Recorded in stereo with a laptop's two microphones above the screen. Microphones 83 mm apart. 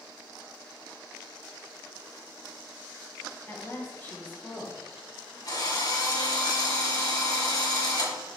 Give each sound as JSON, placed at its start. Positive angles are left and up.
{"t": 3.5, "sound": "a woman speaking", "side_deg": 25, "distance_m": 1.5}
{"t": 5.5, "sound": "a drill", "side_deg": 50, "distance_m": 2.0}